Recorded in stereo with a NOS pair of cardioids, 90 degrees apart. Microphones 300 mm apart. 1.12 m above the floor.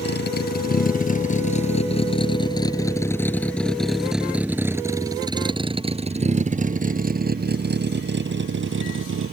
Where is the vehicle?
35° left; by 9.3 s 45° right.